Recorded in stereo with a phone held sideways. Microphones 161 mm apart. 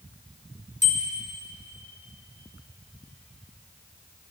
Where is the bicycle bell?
45° left (ahead or behind), 4 m.